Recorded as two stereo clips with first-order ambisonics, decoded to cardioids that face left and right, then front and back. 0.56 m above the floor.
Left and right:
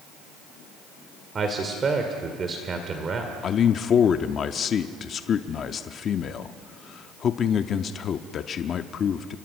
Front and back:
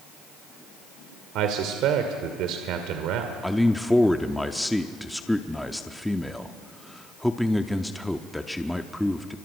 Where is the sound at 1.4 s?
155° right, 1.9 m.